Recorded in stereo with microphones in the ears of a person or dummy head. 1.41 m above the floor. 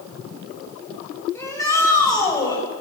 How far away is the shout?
About 8 m.